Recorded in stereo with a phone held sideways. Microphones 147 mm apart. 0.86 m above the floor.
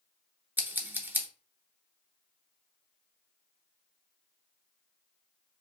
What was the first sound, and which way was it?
Scissors, 10° right (ahead or behind).